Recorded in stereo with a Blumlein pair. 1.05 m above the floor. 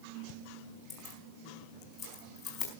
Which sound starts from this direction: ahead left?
Keys jangling, at 0.9 s.